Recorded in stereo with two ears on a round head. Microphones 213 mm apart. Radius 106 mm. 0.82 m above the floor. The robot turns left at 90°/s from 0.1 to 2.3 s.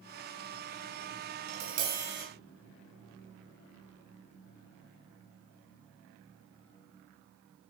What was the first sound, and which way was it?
Tapping, 100° right.